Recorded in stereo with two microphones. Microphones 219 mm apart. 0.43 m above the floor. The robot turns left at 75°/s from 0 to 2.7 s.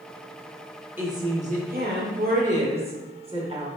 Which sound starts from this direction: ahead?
A woman speaking, at 1.0 s.